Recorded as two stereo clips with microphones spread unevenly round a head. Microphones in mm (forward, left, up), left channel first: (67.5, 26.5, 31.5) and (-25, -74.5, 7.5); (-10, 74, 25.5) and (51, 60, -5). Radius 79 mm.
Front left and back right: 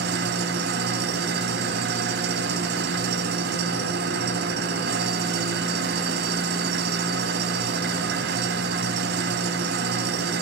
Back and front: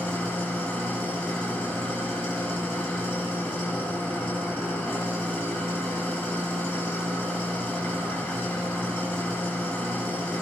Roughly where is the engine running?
Behind right.